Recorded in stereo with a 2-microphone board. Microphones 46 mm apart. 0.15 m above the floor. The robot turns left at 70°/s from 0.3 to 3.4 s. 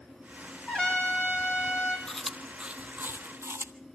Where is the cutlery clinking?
No cutlery clinking in this recording.